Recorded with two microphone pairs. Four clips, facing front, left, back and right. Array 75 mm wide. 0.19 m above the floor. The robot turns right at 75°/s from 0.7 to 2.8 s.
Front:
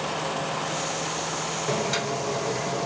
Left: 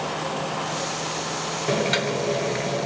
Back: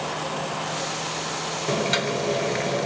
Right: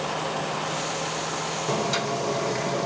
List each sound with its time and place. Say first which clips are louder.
1.7 s boiling: left 3 dB, back 3 dB; 100° left, 1.0 m; by 2.9 s straight behind, 1.0 m